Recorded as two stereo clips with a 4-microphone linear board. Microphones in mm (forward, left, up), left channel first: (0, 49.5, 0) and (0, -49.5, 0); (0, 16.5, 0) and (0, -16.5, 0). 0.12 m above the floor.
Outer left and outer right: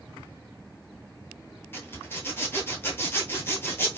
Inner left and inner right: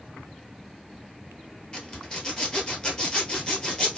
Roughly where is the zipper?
Left.